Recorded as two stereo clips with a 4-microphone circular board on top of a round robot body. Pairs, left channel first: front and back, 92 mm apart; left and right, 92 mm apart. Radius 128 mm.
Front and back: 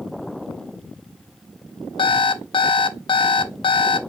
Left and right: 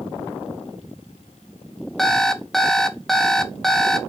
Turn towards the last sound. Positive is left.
turn(degrees=5)